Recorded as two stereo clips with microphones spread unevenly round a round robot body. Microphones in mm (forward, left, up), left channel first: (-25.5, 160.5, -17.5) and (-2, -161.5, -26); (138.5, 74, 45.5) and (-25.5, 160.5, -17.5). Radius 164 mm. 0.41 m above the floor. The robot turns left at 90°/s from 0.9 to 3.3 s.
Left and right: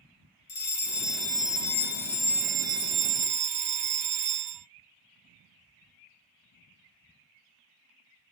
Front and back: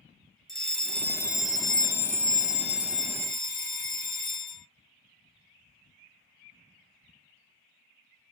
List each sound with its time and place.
0.5 s a fire alarm: 125° left, 1.9 m; by 4.7 s 90° right, 1.9 m